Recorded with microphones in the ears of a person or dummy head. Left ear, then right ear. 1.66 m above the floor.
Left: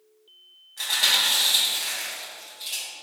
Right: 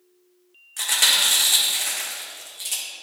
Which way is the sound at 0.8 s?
40° right (ahead or behind).